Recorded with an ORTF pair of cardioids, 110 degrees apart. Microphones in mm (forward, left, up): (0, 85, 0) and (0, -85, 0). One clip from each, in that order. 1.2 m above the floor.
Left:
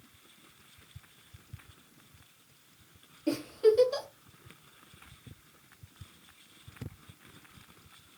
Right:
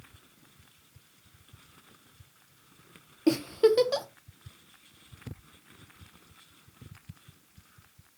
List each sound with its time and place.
3.3 s a giggle: 60° right, 0.6 m